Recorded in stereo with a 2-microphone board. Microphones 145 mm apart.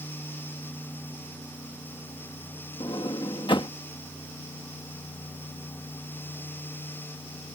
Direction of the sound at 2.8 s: 35° left (ahead or behind).